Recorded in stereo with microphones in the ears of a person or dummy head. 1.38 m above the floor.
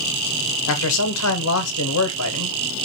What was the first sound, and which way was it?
A man speaking, 80° left.